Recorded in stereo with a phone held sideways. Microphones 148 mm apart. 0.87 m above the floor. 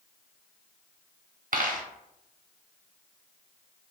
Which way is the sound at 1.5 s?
70° right (ahead or behind).